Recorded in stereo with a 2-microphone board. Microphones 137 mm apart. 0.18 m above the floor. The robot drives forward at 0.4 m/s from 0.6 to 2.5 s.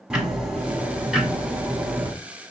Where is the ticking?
5° right (ahead or behind), 1.6 m.